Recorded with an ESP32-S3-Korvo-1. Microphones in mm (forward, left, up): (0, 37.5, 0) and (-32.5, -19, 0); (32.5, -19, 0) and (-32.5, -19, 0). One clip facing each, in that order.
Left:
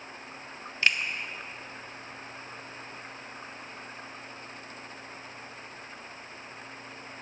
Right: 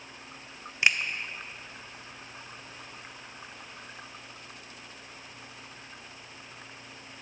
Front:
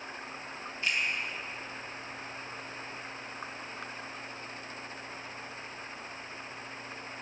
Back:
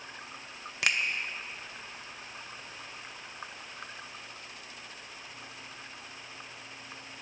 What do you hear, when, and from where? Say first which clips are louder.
0.8 s a finger snap: right 1 dB, back 3 dB; 165° left, 0.7 m